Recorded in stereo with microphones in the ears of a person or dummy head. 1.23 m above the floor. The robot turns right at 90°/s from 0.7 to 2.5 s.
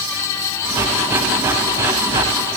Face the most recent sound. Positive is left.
No sound to turn to.